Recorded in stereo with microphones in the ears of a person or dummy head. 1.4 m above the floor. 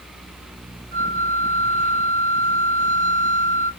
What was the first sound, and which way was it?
A flute, 60° right (ahead or behind).